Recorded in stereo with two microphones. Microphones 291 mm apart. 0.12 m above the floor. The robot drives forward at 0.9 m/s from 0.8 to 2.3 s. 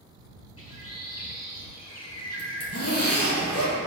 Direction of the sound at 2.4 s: 55° left (ahead or behind).